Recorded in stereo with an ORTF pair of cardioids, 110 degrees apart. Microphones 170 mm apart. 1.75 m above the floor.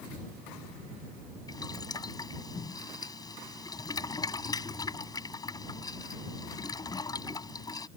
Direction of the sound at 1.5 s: 25° left.